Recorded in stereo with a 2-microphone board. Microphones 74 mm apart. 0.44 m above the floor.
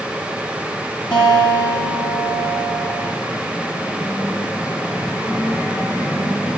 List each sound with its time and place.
1.1 s a guitar: 65° left (ahead or behind), 5.5 m